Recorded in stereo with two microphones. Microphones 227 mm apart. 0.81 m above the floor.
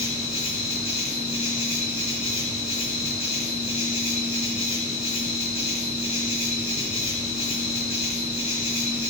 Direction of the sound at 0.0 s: 30° left (ahead or behind).